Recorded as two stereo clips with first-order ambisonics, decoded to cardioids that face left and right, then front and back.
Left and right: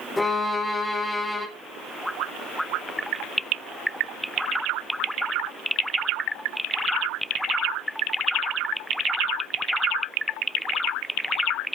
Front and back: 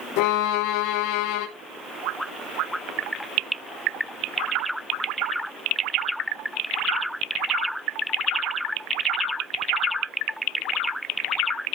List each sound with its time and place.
0.2 s a violin: 5° left, 1.2 m